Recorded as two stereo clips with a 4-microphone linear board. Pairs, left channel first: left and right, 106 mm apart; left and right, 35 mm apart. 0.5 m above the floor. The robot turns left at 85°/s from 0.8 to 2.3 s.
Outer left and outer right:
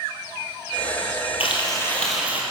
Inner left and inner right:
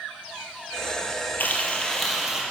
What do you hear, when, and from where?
1.4 s frying: 60° left, 3 m; by 2.4 s 15° right, 3 m